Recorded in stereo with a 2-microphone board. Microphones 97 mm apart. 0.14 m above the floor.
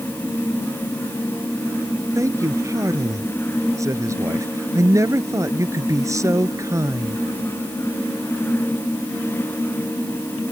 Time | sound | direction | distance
2.1 | a man speaking | 35° right (ahead or behind) | ?